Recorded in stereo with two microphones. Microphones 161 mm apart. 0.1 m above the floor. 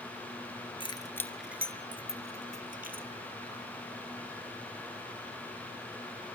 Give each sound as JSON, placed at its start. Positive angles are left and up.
{"t": 0.8, "sound": "keys jangling", "side_deg": 30, "distance_m": 0.9}